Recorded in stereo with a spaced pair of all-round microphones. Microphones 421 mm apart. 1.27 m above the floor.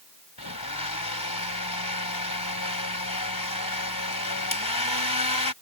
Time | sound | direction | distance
0.4 | a blender | 55° left (ahead or behind) | ?